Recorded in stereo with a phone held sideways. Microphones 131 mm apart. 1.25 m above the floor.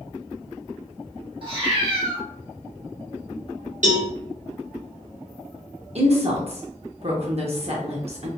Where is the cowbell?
70° right (ahead or behind), 0.9 m.